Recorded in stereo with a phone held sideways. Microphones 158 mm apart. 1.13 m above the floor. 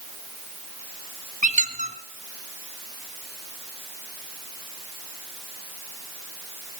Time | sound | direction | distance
1.4 | a squeak | 50° right (ahead or behind) | 1.4 m